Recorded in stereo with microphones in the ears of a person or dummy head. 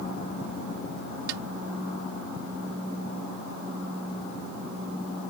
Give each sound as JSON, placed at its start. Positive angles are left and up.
{"t": 1.3, "sound": "a snare drum", "side_deg": -80}